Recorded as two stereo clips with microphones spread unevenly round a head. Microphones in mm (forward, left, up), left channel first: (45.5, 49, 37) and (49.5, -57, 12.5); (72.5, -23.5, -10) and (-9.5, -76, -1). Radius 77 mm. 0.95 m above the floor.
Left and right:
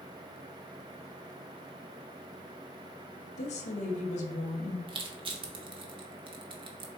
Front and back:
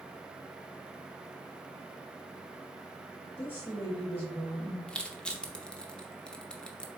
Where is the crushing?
50° right, 0.7 m.